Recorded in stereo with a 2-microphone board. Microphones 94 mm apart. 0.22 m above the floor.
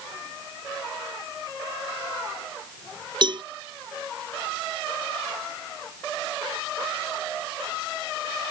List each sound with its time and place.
3.2 s a cowbell: 50° right (ahead or behind)